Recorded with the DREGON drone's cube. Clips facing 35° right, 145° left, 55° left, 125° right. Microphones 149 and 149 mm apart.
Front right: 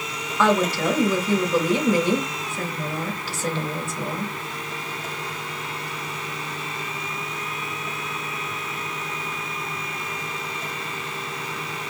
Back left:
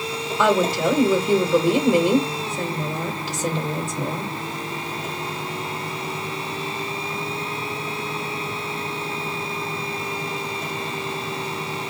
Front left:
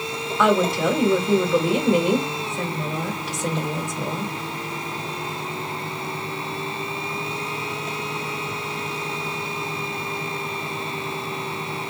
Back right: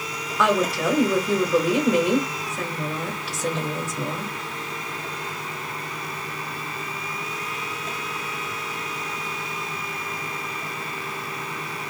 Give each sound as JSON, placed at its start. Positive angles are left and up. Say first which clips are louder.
{"t": 0.4, "sound": "a woman speaking", "louder": "back left 1 dB, front left 2 dB", "azimuth_deg": 150, "distance_m": 1.2}